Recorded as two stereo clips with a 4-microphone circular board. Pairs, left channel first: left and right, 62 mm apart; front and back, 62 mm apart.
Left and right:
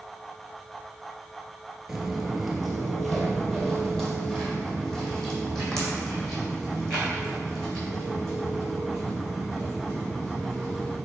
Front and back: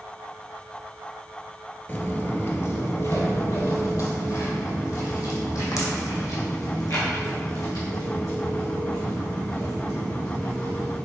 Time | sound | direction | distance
1.9 | footsteps | 15° right | 1.3 m